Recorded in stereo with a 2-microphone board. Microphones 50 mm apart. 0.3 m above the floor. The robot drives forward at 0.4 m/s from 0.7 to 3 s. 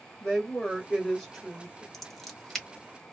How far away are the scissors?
About 1.1 m.